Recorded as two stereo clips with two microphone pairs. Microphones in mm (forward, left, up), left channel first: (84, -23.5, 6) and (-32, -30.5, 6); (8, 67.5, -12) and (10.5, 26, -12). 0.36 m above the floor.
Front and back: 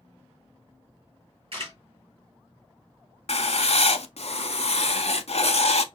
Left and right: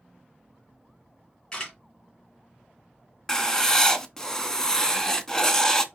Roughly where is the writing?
Ahead.